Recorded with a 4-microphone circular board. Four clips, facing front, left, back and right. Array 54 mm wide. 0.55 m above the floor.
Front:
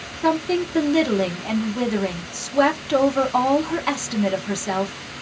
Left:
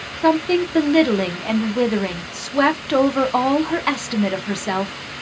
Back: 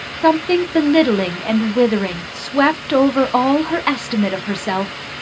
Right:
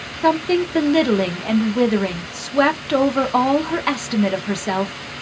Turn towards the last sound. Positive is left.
turn(degrees=180)